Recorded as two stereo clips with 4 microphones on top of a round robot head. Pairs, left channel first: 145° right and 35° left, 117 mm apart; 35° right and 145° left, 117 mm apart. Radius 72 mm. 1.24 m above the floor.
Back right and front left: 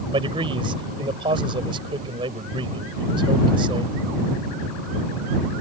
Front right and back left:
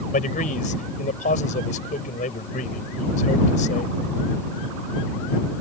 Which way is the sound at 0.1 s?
15° right.